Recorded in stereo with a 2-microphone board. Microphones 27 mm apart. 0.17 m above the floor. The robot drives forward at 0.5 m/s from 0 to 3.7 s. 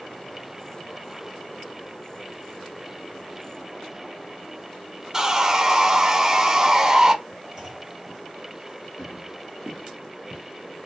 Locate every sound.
5.1 s sawing: 20° right (ahead or behind), 0.7 m
7.6 s a clunk: 30° right (ahead or behind), 2.5 m
9.0 s footsteps: 15° left (ahead or behind), 2.5 m; by 10.4 s 30° left (ahead or behind), 1.6 m